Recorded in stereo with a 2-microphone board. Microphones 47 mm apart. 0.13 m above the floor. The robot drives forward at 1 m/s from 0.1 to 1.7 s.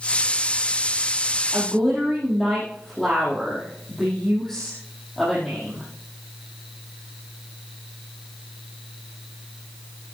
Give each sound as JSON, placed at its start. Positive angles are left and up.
{"t": 1.5, "sound": "a woman speaking", "side_deg": -5, "distance_m": 4.5}